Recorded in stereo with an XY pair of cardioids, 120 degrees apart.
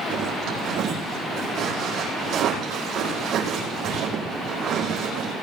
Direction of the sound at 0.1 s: 65° right.